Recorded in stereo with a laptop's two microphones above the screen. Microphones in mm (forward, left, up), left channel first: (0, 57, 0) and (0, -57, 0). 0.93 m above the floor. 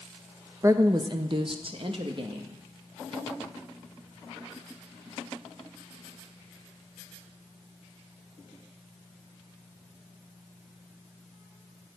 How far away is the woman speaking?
About 0.7 m.